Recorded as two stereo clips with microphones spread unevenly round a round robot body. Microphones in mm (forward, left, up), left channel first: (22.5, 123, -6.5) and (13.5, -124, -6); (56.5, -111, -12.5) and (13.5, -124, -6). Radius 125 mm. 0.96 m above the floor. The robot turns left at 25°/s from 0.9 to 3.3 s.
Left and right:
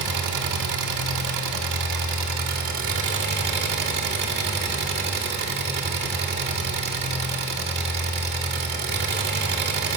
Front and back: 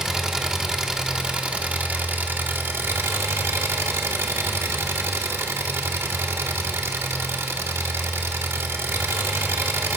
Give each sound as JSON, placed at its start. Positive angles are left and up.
{"t": 0.0, "sound": "an engine running", "azimuth_deg": -85, "distance_m": 2.5}